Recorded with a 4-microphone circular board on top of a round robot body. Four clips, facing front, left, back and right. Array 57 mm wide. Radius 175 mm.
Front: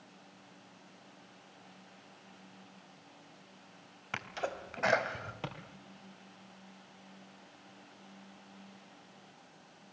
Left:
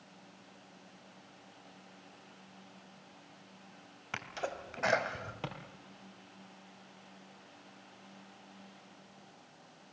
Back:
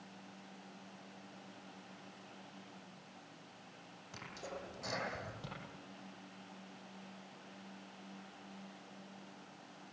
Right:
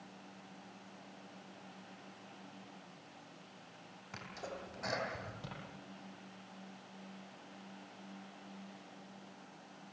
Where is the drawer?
50° left, 4 m.